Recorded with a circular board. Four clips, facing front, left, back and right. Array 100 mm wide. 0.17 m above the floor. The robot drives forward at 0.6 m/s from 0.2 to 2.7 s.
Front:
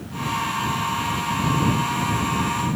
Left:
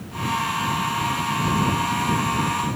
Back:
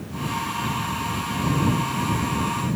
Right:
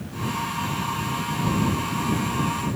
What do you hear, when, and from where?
Only background noise.